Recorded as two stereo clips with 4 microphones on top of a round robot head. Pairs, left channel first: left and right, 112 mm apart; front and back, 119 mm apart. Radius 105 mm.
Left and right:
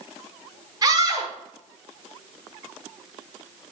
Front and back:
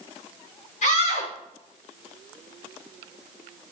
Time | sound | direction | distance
0.8 | a scream | 35° right | 9.5 m